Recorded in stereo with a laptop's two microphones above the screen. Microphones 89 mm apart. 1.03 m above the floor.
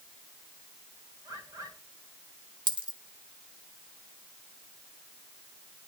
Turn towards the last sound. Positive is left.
turn(degrees=-65)  # may be behind; listen again after turning